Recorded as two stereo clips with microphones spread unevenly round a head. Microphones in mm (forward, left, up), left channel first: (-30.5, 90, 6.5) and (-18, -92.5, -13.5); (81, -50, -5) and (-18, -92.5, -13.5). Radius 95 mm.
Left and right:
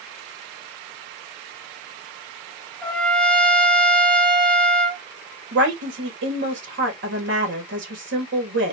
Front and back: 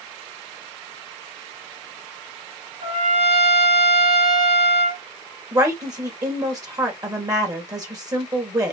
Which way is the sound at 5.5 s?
105° right.